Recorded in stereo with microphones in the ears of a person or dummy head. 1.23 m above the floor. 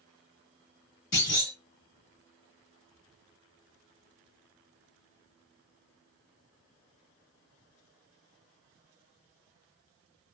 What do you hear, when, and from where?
1.1 s a clunk: 40° left (ahead or behind), 1.2 m